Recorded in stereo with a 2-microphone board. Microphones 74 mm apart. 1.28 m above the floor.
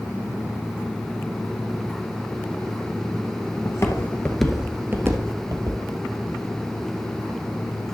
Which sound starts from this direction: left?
Footsteps, at 3.6 s.